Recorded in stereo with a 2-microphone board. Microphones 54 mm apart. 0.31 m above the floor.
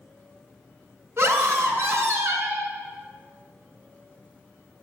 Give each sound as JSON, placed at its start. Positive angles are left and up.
{"t": 1.2, "sound": "a scream", "side_deg": -50, "distance_m": 3.5}